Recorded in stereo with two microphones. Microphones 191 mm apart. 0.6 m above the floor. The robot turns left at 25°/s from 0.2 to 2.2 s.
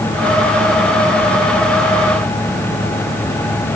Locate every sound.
Only background noise.